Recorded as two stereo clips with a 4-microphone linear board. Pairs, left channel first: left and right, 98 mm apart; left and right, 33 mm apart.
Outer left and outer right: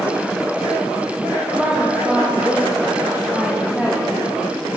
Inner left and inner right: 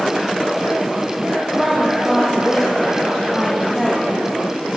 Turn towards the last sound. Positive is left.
turn(degrees=0)  # may be behind; listen again after turning